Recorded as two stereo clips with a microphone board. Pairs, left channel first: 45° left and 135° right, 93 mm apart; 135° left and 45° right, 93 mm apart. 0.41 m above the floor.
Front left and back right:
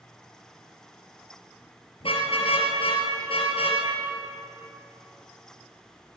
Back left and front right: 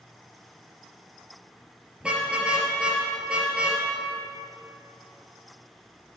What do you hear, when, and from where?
2.0 s a car horn: 35° left, 3.5 m